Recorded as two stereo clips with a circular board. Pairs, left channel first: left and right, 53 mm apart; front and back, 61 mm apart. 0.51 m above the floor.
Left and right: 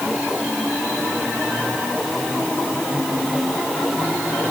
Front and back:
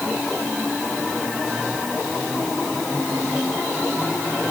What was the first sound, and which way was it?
Only background noise.